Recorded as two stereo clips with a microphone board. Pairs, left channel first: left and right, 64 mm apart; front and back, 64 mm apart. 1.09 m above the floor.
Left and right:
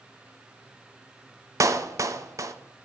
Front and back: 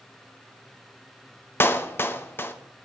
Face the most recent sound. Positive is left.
turn(degrees=-55)